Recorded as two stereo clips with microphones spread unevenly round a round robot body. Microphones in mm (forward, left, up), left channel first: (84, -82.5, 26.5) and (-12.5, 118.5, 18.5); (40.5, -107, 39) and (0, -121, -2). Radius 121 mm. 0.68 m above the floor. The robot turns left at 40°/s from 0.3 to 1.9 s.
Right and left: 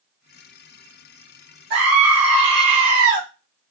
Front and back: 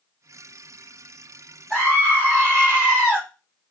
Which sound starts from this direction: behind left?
A scream, at 1.7 s.